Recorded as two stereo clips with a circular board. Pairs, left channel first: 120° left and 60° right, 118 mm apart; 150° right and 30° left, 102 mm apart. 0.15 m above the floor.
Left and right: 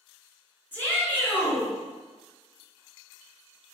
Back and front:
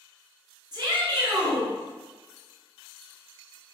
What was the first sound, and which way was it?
A shout, 50° left.